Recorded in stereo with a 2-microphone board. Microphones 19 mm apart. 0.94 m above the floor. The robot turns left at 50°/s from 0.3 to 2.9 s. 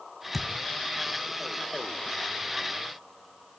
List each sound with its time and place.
0.3 s a thud: 5° left (ahead or behind), 1.6 m; by 0.5 s 5° right (ahead or behind), 1.6 m